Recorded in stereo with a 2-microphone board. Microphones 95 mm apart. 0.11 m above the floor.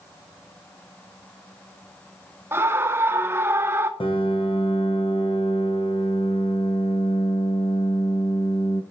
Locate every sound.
2.5 s a scream: 25° right (ahead or behind), 1.5 m
4.0 s a piano: 70° left (ahead or behind), 2.5 m